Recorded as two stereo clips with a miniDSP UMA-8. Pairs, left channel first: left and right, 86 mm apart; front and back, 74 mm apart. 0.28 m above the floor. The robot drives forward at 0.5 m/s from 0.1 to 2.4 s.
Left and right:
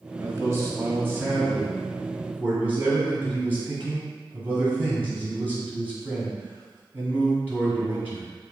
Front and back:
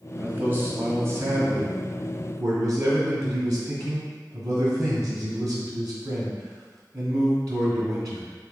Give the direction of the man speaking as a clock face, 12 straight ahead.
4 o'clock.